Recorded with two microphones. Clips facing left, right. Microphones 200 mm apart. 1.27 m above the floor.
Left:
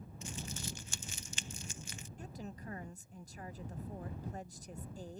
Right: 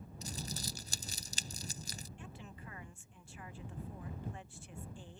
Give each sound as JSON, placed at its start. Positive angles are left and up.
{"t": 0.2, "sound": "crumpling", "side_deg": -35}
{"t": 2.2, "sound": "a woman speaking", "side_deg": 40}